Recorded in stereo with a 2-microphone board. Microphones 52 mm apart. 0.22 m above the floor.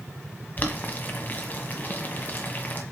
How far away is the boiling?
About 1.4 m.